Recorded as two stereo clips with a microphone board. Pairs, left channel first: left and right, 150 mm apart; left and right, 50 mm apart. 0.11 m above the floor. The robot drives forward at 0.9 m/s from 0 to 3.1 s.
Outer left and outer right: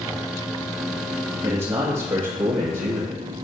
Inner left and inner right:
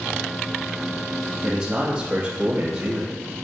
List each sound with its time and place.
1.4 s a man speaking: 35° right (ahead or behind), 2.5 m; by 3.2 s 50° right (ahead or behind), 1.9 m